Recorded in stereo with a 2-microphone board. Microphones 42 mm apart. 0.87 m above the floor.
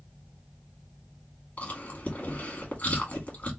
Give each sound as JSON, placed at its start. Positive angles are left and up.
{"t": 1.6, "sound": "chewing", "side_deg": 35, "distance_m": 1.9}